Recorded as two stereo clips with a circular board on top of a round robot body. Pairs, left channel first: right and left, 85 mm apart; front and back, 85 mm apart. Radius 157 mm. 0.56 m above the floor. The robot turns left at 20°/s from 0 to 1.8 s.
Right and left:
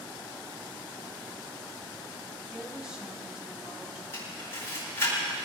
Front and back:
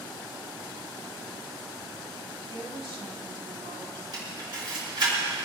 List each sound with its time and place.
2.5 s a woman speaking: 170° left, 3.5 m
4.1 s a camera shutter: 150° right, 7.5 m